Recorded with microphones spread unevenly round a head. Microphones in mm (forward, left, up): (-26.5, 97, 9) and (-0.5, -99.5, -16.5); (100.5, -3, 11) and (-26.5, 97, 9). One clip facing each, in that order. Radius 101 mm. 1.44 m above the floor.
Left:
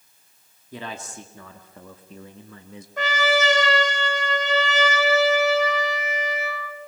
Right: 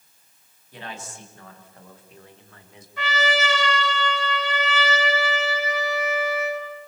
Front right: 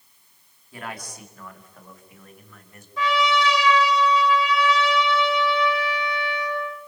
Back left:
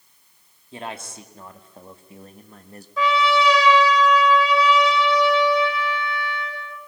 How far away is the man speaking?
About 3.5 m.